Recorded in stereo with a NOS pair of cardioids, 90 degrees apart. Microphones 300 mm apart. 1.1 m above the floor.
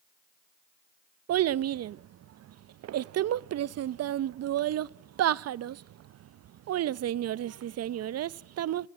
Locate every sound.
1.3 s a child speaking: 55° right, 0.6 m